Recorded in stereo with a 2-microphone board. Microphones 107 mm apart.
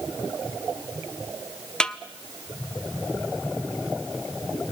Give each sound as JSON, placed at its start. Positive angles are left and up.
{"t": 1.8, "sound": "a snare drum", "side_deg": 10, "distance_m": 0.8}